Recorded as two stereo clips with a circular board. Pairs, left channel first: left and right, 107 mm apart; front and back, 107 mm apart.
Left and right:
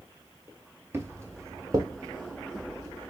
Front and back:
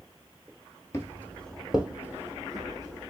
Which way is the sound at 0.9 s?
40° right.